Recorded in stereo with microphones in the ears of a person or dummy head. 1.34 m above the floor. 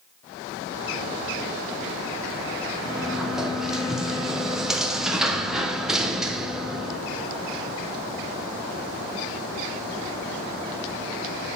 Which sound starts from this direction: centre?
A sliding door, at 2.9 s.